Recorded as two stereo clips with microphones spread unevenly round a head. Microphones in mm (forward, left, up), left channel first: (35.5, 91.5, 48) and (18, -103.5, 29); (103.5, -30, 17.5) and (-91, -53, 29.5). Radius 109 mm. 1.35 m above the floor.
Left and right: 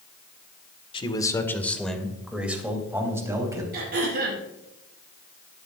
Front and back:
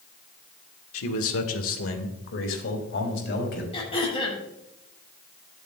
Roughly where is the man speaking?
Ahead.